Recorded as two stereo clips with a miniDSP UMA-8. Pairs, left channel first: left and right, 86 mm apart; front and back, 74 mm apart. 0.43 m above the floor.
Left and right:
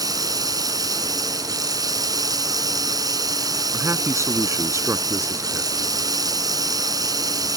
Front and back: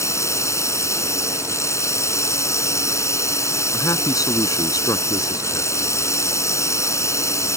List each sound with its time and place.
0.0 s running water: 50° right
3.7 s a man speaking: 35° right